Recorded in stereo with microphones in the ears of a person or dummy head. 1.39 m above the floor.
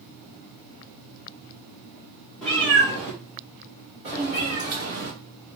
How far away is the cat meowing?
About 1.2 m.